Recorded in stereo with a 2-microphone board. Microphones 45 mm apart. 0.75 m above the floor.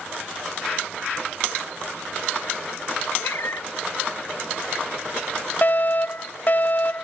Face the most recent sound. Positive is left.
turn(degrees=40)  # may be behind; listen again after turning